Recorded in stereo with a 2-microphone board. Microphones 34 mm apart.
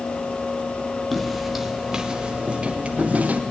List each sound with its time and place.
1.1 s footsteps: centre (ahead or behind), 2.5 m; by 3.4 s 50° right (ahead or behind), 3 m